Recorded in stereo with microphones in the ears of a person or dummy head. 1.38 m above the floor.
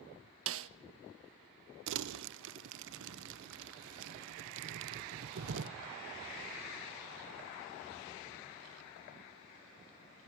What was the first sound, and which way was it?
A snare drum, 55° right (ahead or behind).